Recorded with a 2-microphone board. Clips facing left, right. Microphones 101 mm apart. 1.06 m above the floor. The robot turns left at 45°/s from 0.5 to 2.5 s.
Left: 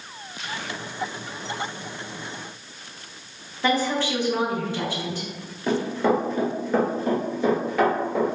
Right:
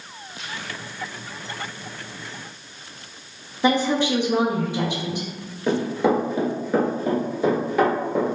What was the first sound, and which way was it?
A woman speaking, 20° right (ahead or behind).